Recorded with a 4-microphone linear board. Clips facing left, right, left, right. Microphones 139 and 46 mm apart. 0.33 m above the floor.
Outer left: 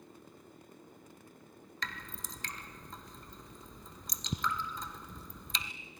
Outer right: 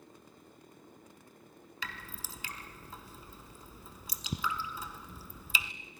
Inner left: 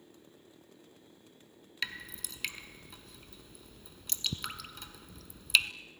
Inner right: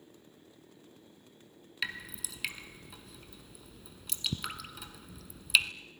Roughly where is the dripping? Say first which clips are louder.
Outer left 1 dB, inner right 1 dB; centre.